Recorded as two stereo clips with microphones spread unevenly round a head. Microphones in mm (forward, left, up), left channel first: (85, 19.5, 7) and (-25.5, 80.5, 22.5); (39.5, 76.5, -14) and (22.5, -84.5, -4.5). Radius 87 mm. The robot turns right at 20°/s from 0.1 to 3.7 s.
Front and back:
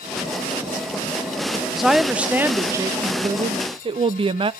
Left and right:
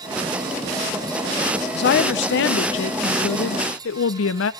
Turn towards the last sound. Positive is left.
turn(degrees=100)